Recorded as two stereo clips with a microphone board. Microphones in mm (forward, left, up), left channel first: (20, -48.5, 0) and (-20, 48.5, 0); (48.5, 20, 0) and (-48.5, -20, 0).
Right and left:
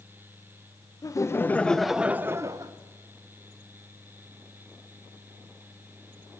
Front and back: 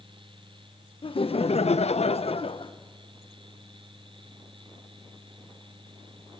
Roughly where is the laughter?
Ahead.